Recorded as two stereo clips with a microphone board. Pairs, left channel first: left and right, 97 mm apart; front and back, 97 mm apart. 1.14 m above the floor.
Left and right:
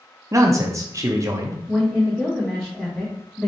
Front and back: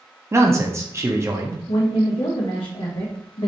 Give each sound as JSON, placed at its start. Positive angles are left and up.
{"t": 0.3, "sound": "a man speaking", "azimuth_deg": -130, "distance_m": 0.6}
{"t": 1.7, "sound": "a woman speaking", "azimuth_deg": 5, "distance_m": 1.0}